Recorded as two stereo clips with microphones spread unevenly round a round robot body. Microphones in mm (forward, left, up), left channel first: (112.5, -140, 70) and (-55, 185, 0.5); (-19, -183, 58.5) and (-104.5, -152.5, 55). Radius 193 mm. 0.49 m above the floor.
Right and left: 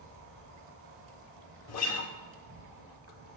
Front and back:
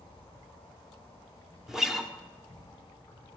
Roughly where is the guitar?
Behind right.